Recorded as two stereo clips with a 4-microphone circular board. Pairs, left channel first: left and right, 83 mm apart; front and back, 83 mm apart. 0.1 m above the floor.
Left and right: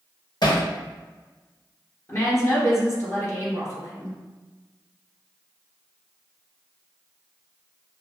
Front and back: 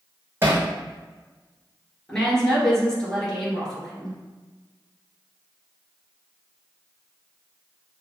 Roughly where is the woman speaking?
Left.